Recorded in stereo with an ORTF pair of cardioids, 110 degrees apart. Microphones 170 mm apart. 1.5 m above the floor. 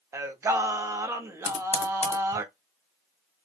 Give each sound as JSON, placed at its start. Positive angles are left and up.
{"t": 0.1, "sound": "singing", "azimuth_deg": -15, "distance_m": 0.5}
{"t": 1.4, "sound": "typing on a keyboard", "azimuth_deg": 35, "distance_m": 0.8}